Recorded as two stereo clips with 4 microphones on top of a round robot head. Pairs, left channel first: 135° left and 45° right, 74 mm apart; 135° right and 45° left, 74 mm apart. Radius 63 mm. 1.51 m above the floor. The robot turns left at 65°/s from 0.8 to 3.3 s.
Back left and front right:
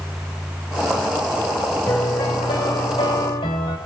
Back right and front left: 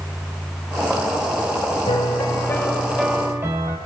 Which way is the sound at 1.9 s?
155° right.